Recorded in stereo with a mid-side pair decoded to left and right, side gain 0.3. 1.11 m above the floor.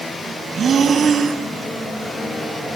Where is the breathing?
65° right, 5 m.